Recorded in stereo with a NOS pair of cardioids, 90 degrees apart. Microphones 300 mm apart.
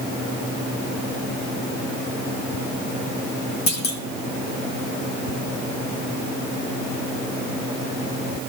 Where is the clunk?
70° left, 1.7 m.